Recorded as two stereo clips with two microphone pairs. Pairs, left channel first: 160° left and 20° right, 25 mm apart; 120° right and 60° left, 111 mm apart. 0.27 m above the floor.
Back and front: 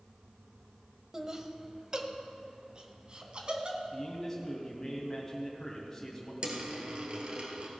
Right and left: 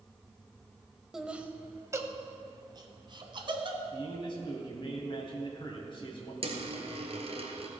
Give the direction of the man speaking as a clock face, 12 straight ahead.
4 o'clock.